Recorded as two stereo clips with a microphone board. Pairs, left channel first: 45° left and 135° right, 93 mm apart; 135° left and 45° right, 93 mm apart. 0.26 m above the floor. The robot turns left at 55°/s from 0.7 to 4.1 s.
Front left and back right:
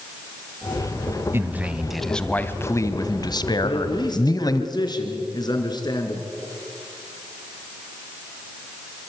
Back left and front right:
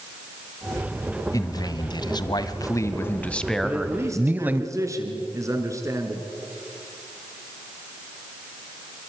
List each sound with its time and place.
1.3 s a man speaking: 170° left, 1.5 m; by 4.6 s 20° left, 1.5 m
3.6 s a man speaking: 35° left, 3.5 m; by 6.2 s 10° left, 3.5 m